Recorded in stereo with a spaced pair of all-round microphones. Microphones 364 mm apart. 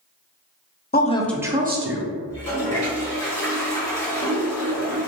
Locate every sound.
0.9 s a woman speaking: 25° left (ahead or behind), 0.5 m; by 2.1 s 45° right (ahead or behind), 0.6 m
2.3 s a toilet flushing: 45° left (ahead or behind), 1.4 m